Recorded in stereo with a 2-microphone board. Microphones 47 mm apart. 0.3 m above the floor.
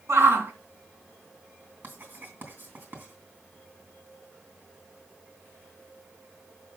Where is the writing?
45° right (ahead or behind), 3 m.